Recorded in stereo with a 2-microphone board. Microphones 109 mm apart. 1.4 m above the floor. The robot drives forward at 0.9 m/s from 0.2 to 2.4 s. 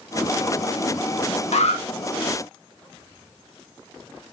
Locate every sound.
1.5 s an alarm: 85° left, 2.5 m; by 1.8 s 80° left, 2.5 m